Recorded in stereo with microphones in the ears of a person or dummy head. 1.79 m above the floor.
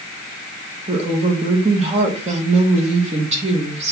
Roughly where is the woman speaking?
Right.